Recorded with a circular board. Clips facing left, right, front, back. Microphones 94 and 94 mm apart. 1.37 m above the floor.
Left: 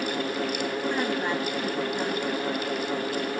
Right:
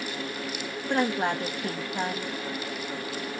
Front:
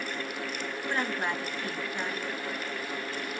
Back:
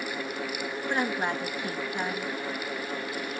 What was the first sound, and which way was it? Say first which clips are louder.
A woman speaking: right 5 dB, back 3 dB; 105° right.